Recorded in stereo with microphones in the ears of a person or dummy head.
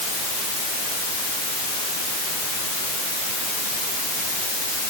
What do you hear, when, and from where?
Only background noise.